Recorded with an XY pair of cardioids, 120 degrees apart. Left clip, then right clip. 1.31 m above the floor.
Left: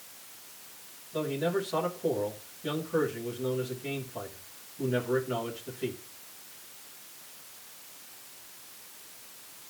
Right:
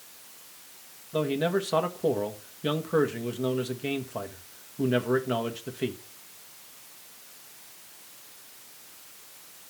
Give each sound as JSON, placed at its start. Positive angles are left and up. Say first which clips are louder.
{"t": 1.1, "sound": "a man speaking", "louder": "right 3 dB", "azimuth_deg": -60, "distance_m": 1.4}